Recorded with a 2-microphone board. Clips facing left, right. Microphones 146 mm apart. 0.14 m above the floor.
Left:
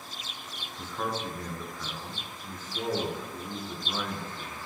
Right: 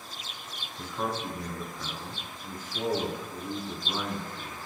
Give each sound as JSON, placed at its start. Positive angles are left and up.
{"t": 0.8, "sound": "a man speaking", "side_deg": -15, "distance_m": 1.2}